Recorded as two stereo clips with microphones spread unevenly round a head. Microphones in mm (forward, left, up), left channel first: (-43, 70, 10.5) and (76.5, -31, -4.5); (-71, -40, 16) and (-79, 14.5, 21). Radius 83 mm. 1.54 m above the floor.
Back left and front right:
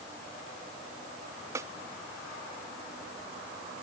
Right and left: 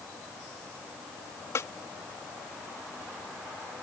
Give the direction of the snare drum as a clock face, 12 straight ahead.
4 o'clock.